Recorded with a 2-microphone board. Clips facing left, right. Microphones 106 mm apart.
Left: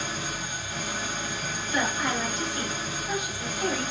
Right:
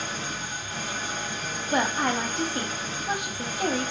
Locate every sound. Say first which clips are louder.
0.0 s an engine running: even; 10° left (ahead or behind), 1.1 m
1.7 s a woman speaking: right 3 dB; 60° right (ahead or behind), 0.7 m